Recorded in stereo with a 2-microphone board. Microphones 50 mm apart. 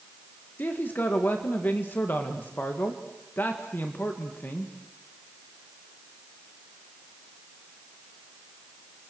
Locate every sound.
0.6 s a man speaking: 40° left (ahead or behind), 1.8 m